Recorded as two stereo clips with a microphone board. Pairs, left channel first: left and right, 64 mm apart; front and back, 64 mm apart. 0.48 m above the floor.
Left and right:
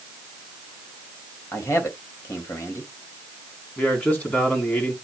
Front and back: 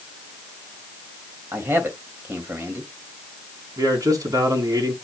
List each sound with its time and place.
1.5 s a man speaking: 130° left, 3 m
3.8 s a man speaking: 155° left, 4.5 m